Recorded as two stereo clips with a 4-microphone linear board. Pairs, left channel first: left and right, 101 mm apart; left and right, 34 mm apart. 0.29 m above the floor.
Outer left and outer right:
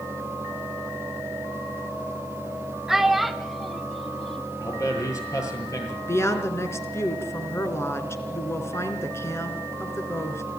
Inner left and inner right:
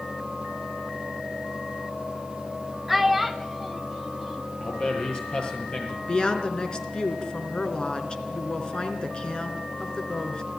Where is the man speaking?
35° left (ahead or behind), 7.5 m.